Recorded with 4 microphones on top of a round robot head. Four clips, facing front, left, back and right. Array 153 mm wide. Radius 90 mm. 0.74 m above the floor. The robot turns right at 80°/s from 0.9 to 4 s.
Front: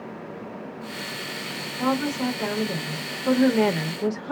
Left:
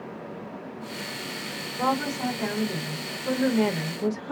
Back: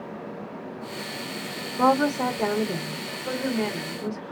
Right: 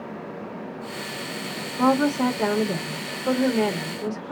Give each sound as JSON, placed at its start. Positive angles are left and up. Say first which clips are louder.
{"t": 1.8, "sound": "a woman speaking", "louder": "right 6 dB, back 4 dB", "azimuth_deg": -165, "distance_m": 1.5}